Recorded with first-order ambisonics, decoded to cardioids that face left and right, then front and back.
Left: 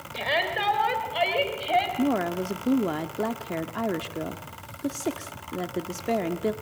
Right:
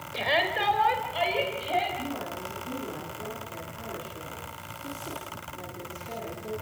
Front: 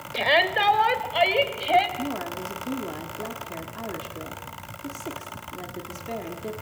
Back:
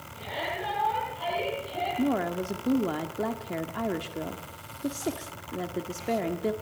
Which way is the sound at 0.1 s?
5° right.